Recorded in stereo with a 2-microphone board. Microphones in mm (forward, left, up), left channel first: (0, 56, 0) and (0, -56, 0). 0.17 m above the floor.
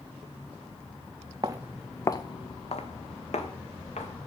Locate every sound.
1.4 s footsteps: 35° right (ahead or behind), 0.8 m; by 4.1 s 80° left, 3 m